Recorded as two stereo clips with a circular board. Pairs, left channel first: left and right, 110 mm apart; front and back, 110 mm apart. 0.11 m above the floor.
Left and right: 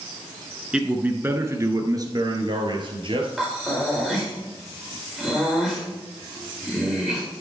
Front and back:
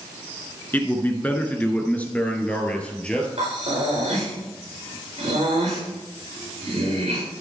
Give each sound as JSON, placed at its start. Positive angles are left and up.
{"t": 0.7, "sound": "a man speaking", "azimuth_deg": -25, "distance_m": 1.3}
{"t": 3.4, "sound": "breathing", "azimuth_deg": -170, "distance_m": 5.0}